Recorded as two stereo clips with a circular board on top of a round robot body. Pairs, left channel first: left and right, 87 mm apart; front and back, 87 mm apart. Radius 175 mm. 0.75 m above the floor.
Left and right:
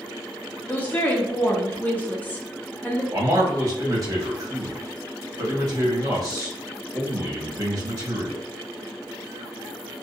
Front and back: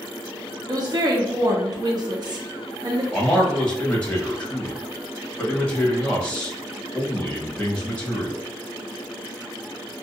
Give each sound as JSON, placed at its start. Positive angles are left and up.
{"t": 0.7, "sound": "a woman speaking", "azimuth_deg": 155, "distance_m": 0.8}
{"t": 3.1, "sound": "a man speaking", "azimuth_deg": -75, "distance_m": 1.5}